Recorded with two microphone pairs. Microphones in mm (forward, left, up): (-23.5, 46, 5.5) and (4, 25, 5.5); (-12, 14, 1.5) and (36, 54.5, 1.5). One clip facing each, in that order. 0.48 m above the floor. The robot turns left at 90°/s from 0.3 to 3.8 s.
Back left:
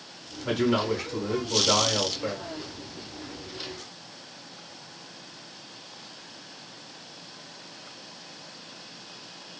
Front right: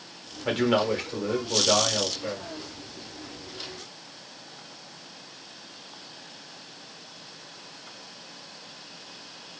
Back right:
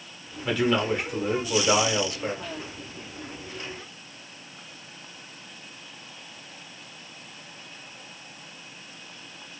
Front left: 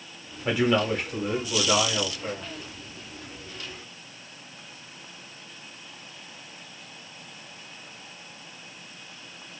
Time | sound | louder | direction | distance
0.5 | a man speaking | front right 1 dB, front left 1 dB | 5° right | 1.0 m